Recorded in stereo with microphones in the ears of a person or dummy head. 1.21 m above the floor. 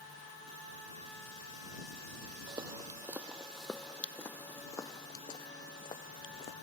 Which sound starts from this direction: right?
Footsteps, at 2.5 s.